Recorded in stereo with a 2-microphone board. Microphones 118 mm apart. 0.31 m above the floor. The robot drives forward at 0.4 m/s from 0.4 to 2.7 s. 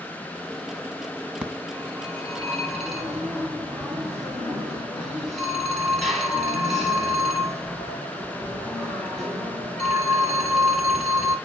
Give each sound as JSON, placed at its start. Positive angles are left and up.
{"t": 1.4, "sound": "a phone ringing", "side_deg": 5, "distance_m": 1.6}